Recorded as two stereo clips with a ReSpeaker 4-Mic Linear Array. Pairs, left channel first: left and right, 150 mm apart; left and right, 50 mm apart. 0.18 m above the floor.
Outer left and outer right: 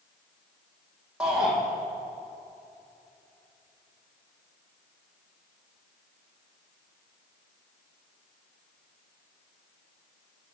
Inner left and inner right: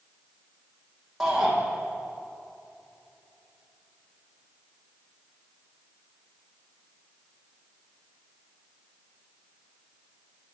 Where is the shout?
5° right (ahead or behind), 8.5 m.